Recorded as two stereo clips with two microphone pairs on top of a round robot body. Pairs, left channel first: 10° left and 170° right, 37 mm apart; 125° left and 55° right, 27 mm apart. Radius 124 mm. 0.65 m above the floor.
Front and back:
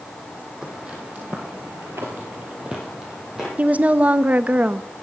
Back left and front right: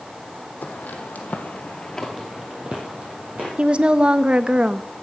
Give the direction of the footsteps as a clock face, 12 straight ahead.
8 o'clock.